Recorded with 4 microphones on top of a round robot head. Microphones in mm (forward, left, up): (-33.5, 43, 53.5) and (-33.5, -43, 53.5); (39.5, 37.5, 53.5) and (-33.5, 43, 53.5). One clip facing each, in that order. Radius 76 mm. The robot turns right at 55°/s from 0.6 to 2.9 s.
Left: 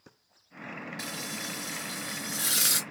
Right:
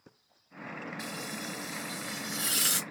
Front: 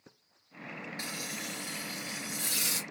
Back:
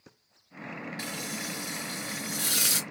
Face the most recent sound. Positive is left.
turn(degrees=175)